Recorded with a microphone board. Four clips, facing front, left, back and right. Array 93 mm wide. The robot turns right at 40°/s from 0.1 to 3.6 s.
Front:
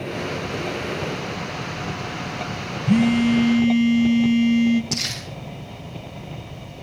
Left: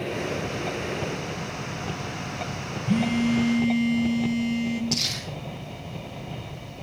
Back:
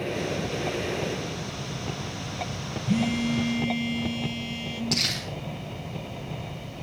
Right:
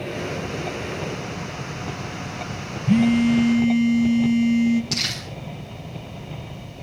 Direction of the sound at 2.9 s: 40° right.